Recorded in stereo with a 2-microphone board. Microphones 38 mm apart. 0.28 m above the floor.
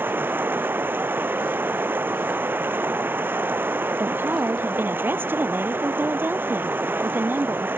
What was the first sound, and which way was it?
Running water, 65° right (ahead or behind).